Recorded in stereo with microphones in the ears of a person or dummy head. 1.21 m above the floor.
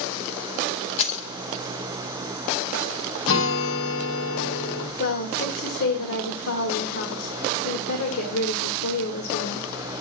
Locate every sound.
1.0 s keys jangling: 35° left (ahead or behind), 0.6 m
3.3 s a guitar: 65° left (ahead or behind), 1.8 m
5.0 s a woman speaking: 75° left (ahead or behind), 1.6 m